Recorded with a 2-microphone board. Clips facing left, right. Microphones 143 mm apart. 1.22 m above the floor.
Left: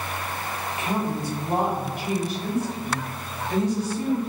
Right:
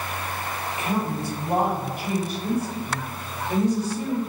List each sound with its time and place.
0.8 s a woman speaking: 30° right (ahead or behind), 2.0 m